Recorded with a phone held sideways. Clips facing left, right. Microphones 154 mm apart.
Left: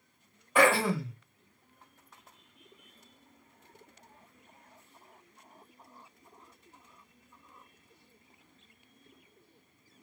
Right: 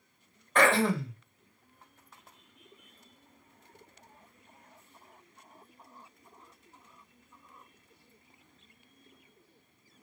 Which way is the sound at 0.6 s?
10° left (ahead or behind).